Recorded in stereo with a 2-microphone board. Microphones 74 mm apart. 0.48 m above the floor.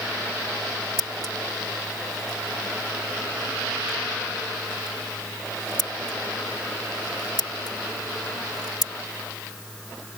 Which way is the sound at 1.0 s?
60° left (ahead or behind).